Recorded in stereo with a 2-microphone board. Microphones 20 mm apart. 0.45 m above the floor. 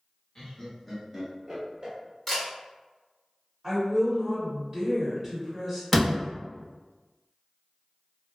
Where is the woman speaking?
20° right (ahead or behind), 1.8 m.